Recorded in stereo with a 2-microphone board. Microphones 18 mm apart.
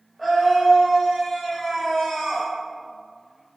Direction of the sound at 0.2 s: 5° left (ahead or behind).